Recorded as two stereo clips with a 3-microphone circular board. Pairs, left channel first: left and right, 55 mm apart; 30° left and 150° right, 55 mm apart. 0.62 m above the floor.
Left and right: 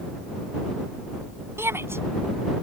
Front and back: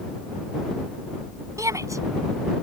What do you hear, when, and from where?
1.6 s a shout: 130° right